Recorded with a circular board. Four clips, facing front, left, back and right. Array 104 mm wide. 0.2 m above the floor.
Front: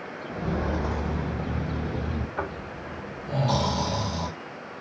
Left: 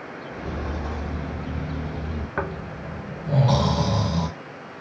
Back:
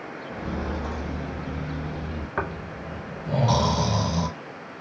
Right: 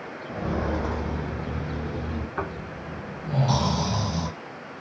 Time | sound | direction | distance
0.3 | footsteps | 85° right | 0.6 m
2.4 | snoring | 130° left | 0.6 m